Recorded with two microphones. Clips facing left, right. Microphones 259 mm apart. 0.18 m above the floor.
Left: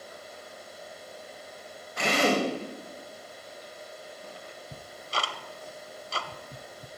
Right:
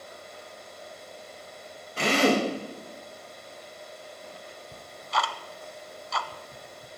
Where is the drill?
35° right (ahead or behind), 6 m.